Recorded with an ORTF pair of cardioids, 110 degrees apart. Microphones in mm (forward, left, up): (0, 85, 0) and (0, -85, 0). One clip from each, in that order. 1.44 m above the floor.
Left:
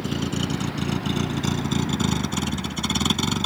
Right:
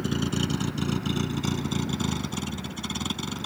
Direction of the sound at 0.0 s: 5° left.